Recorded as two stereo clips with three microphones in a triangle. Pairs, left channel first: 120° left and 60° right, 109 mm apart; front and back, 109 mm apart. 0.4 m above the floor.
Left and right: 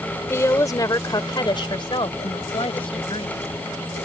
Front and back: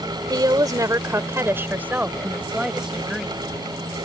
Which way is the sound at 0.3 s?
170° left.